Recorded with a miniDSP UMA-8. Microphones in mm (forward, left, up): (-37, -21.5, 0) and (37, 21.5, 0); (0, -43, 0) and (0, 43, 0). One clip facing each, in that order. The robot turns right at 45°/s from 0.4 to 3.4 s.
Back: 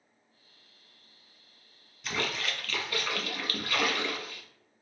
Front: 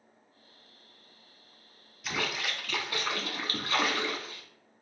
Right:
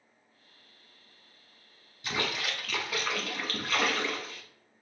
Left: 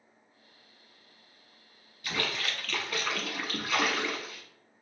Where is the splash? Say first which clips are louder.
Even, right 1 dB; 50° right, 0.8 m; by 4.4 s 10° left, 0.8 m.